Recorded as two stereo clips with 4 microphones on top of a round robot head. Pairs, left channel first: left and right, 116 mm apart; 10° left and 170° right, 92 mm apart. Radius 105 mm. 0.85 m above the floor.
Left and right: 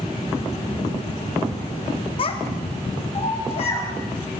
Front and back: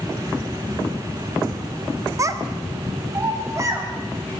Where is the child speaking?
135° left, 1.4 m.